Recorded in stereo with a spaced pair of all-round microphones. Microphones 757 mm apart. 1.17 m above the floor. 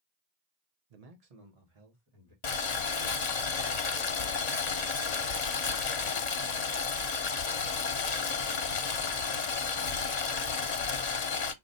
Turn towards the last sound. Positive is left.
turn(degrees=60)  # may be behind; listen again after turning